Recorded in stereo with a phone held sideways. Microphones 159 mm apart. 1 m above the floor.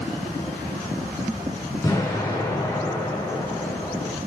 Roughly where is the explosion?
Left.